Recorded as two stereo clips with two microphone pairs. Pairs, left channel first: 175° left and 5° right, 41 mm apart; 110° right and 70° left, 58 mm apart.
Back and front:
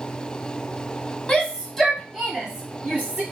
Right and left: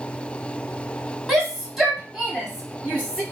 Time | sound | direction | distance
1.3 | a shout | 155° left | 1.1 m